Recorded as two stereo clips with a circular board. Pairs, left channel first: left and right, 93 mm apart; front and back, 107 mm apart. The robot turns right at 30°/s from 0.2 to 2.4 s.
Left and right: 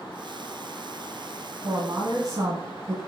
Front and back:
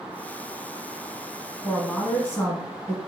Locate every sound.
1.6 s a woman speaking: 65° right, 1.9 m; by 3.0 s 45° right, 1.9 m